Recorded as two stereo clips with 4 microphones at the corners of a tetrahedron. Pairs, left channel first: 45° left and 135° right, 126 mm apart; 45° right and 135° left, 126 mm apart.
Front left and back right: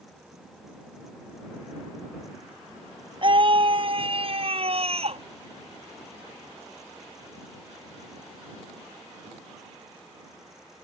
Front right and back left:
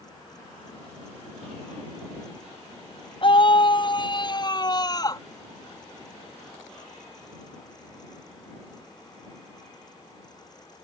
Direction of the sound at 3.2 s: 90° right.